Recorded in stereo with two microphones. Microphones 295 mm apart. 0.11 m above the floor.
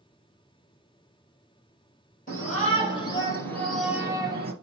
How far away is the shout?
About 3 m.